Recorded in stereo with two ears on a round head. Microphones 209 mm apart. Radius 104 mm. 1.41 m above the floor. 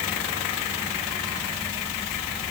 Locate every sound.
Only background noise.